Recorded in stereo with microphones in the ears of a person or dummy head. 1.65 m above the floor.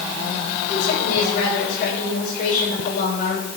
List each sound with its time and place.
0.7 s a woman speaking: 55° left (ahead or behind), 6.5 m